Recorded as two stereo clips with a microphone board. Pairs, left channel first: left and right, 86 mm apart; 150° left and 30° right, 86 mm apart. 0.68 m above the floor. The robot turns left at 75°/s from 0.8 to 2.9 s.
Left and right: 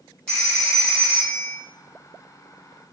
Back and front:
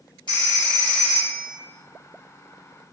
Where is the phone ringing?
165° left, 1.9 m; by 1.6 s 110° left, 1.9 m.